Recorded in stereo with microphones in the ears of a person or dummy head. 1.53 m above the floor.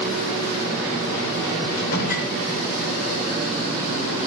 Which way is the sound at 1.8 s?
60° left (ahead or behind).